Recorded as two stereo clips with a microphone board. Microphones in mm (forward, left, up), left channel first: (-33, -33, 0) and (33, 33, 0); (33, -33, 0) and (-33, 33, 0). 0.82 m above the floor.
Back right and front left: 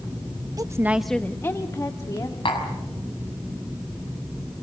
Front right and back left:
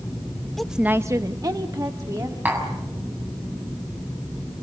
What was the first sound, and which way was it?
A woman speaking, 40° left.